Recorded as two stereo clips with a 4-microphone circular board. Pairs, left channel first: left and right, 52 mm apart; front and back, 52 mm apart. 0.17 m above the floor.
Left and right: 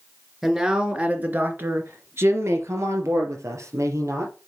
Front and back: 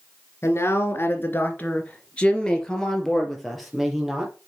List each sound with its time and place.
0.4 s a man speaking: 15° right, 2 m; by 4.3 s 95° right, 4 m